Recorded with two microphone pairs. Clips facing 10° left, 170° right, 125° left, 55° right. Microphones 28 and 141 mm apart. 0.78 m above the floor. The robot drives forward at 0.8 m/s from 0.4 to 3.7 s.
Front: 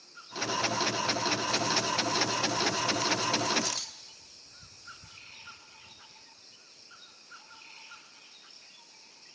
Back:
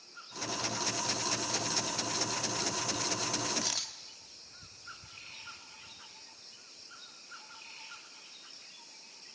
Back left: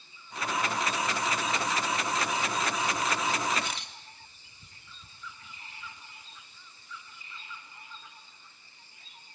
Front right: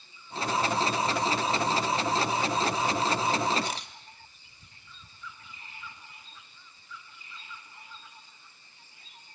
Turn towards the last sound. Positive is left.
turn(degrees=-100)